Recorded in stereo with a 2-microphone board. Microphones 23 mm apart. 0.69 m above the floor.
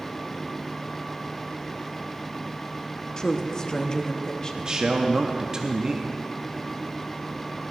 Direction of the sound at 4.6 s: 30° right (ahead or behind).